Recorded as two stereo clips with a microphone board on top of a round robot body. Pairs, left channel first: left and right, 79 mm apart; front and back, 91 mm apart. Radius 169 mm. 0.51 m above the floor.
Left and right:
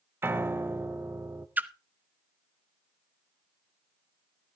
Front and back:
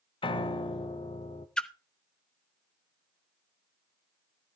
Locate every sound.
0.2 s a piano: 30° right, 0.7 m
1.6 s a splash: 70° right, 1.3 m